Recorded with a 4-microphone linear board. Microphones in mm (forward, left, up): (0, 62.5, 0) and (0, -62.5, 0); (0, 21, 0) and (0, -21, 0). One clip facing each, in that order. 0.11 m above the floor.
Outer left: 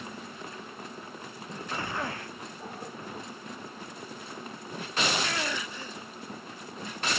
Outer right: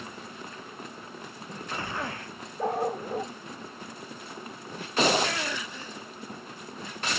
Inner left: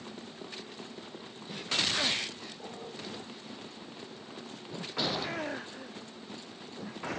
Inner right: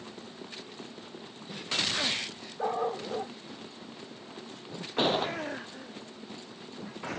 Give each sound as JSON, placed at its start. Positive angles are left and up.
{"t": 2.6, "sound": "a dog barking", "side_deg": -75}
{"t": 5.0, "sound": "a gunshot", "side_deg": -40}